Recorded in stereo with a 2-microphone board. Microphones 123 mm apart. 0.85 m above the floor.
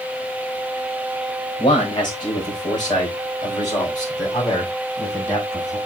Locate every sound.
1.6 s a man speaking: 40° left (ahead or behind), 4.5 m; by 5.8 s 30° left (ahead or behind), 6.5 m